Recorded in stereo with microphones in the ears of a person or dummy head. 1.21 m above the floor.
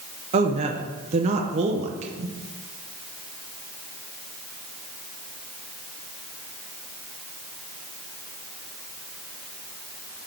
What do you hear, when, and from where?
0.3 s a woman speaking: 30° right (ahead or behind), 0.5 m